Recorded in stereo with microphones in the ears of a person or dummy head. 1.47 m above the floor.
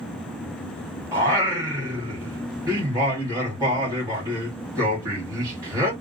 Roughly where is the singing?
Centre.